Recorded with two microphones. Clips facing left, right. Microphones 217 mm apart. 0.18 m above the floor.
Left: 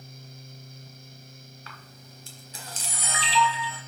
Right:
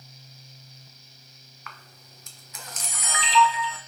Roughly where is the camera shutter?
Left.